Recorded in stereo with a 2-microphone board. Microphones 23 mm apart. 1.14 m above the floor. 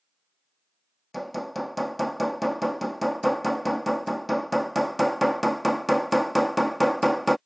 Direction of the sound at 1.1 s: 5° left (ahead or behind).